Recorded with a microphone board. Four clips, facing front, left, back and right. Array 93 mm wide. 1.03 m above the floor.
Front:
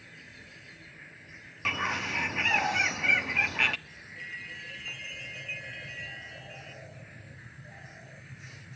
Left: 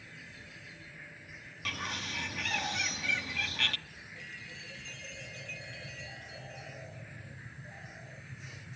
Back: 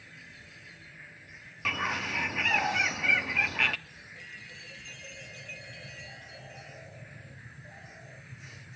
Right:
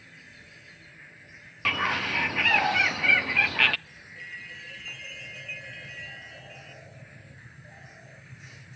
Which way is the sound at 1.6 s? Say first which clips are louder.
Right 11 dB, even; 85° right.